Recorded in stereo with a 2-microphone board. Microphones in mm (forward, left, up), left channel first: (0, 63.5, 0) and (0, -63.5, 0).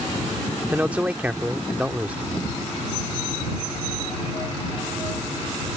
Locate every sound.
0.7 s a man speaking: 10° right (ahead or behind)